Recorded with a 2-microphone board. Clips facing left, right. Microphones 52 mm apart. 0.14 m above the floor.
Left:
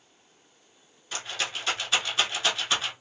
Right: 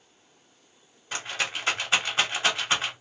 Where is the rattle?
30° right (ahead or behind), 1.1 m.